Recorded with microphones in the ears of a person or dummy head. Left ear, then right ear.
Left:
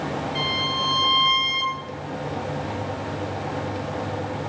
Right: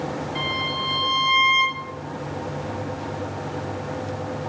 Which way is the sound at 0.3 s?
10° left (ahead or behind).